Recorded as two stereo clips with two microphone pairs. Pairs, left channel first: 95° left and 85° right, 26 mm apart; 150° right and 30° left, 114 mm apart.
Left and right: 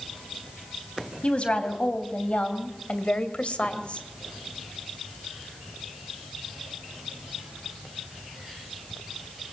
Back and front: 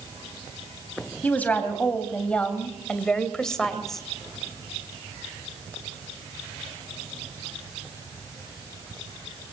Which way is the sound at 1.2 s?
135° left.